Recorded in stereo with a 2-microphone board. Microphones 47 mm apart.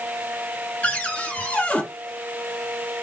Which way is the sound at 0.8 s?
30° left (ahead or behind).